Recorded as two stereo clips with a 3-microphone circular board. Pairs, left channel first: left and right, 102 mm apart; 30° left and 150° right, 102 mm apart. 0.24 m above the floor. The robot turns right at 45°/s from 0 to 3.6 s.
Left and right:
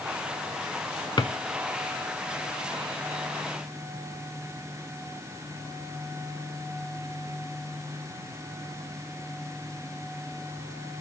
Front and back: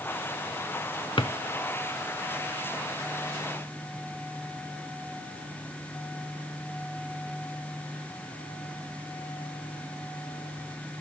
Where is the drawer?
55° left, 0.7 m; by 1.3 s 60° left, 0.7 m.